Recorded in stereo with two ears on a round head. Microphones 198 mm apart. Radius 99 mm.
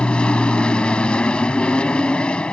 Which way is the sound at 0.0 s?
5° left (ahead or behind).